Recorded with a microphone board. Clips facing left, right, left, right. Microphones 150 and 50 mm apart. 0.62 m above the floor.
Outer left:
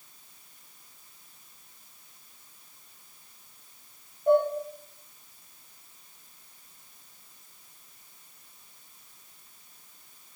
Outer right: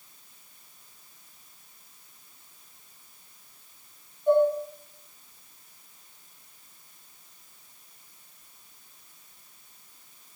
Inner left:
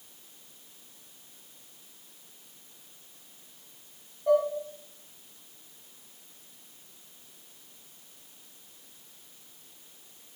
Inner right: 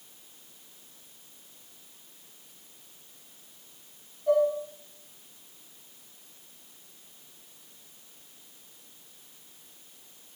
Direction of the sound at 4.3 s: 45° left (ahead or behind).